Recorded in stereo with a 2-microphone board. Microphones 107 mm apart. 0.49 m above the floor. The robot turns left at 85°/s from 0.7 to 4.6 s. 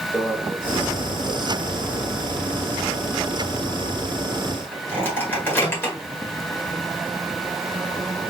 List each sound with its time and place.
0.1 s a microwave: 5° right (ahead or behind), 1.6 m; by 6.0 s 20° left (ahead or behind), 1.6 m